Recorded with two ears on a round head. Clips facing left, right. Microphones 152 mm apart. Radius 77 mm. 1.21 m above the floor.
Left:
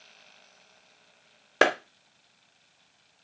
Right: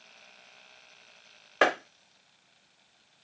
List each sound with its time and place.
1.6 s a clap: 50° left (ahead or behind), 0.8 m